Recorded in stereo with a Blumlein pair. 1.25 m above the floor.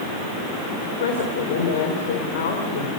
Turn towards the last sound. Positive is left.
turn(degrees=55)